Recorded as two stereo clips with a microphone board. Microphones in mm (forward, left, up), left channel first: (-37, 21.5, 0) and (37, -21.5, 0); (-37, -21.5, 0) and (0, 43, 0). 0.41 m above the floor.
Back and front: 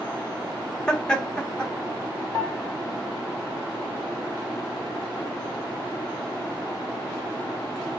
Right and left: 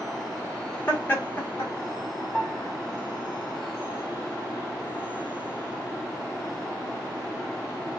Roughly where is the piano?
Behind.